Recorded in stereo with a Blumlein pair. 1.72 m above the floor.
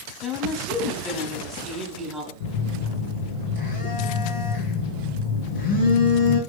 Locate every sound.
0.2 s a woman speaking: 5° right, 1.5 m
2.4 s a phone buzzing: 55° left, 2 m